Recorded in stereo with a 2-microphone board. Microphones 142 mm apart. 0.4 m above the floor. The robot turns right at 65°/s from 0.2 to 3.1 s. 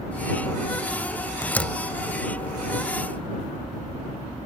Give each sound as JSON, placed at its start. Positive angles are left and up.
{"t": 1.4, "sound": "a door slam", "side_deg": 20}